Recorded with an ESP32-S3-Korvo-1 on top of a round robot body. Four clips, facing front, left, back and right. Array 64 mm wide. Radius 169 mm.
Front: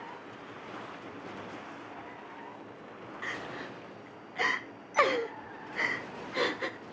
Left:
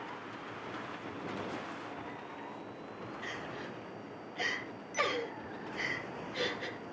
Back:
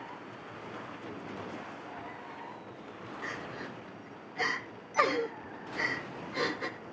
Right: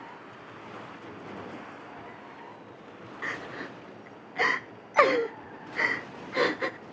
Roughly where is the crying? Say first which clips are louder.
Right 8 dB, front 2 dB; right.